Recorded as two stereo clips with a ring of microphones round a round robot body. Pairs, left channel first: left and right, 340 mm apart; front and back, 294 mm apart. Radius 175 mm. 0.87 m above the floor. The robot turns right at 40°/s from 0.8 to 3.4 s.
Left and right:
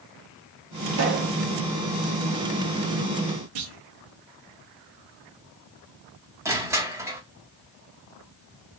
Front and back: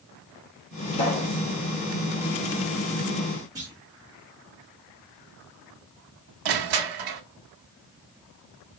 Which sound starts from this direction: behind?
Crushing, at 6.5 s.